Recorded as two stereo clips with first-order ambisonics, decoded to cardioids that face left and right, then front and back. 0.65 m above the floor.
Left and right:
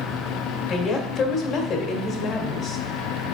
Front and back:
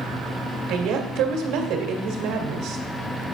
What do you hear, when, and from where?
0.7 s a woman speaking: 145° left, 1.5 m